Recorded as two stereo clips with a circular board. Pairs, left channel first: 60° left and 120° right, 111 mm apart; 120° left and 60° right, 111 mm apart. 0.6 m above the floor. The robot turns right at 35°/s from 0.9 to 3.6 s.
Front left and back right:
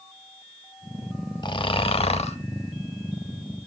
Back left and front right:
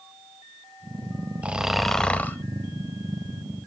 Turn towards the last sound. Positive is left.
turn(degrees=95)